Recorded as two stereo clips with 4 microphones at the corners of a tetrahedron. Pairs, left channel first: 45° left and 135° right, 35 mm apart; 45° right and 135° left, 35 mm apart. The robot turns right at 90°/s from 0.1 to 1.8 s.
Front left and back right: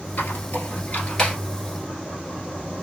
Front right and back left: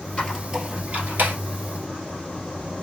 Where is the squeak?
20° left, 1.4 m; by 1.4 s 125° left, 1.4 m.